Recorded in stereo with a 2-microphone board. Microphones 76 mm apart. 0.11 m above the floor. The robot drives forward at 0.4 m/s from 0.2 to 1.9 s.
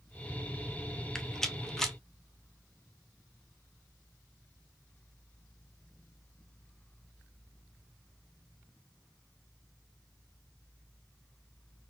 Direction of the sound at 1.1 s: 5° left (ahead or behind).